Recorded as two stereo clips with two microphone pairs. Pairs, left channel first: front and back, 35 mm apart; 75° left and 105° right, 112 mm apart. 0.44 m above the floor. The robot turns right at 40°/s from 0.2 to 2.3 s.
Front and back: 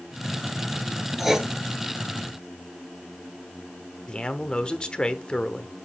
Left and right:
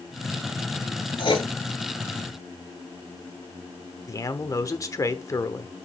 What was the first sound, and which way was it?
Writing, 100° left.